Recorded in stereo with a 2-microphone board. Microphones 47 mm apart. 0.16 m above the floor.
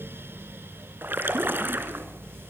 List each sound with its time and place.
1.0 s a splash: 50° right (ahead or behind), 2.5 m